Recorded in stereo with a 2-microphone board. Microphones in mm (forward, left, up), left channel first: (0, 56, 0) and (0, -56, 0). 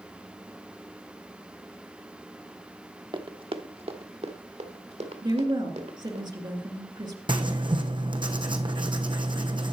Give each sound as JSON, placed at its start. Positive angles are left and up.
{"t": 3.1, "sound": "running footsteps", "side_deg": -45, "distance_m": 0.8}
{"t": 5.2, "sound": "a woman speaking", "side_deg": -40, "distance_m": 2.0}
{"t": 7.3, "sound": "writing", "side_deg": -45, "distance_m": 1.0}